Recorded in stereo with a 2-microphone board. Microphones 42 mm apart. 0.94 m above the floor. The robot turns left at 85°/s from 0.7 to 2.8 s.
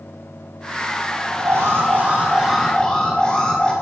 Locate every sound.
1.4 s an alarm: 80° right, 5 m; by 3.7 s 160° left, 5 m